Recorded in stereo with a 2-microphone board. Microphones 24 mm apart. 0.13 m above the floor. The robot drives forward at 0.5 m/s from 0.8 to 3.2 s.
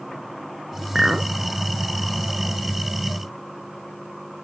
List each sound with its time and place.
0.9 s a clink: 30° right (ahead or behind)